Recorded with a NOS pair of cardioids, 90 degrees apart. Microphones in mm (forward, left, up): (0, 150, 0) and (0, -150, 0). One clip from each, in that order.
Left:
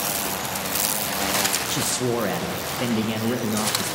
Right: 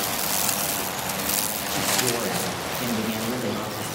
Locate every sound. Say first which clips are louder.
1.7 s a man speaking: even; 30° left, 1.8 m